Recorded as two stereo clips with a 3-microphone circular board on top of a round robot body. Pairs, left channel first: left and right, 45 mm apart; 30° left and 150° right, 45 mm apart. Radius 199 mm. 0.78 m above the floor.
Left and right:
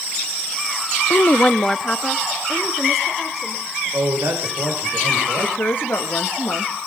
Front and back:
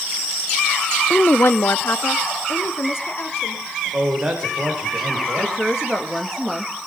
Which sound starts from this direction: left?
A woman speaking, at 1.1 s.